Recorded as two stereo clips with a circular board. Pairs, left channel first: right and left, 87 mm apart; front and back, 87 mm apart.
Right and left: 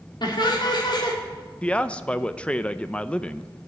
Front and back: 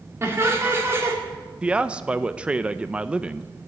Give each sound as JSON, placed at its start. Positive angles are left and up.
{"t": 0.2, "sound": "laughter", "azimuth_deg": -120, "distance_m": 3.0}
{"t": 1.6, "sound": "a man speaking", "azimuth_deg": -130, "distance_m": 0.5}